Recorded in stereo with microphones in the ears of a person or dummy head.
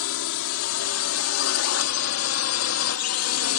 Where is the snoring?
No snoring in this recording.